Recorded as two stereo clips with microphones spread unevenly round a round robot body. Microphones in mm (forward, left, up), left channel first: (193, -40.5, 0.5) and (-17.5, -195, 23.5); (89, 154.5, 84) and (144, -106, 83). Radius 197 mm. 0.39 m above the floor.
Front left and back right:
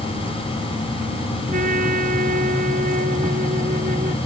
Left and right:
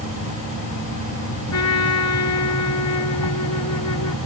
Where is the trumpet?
145° left.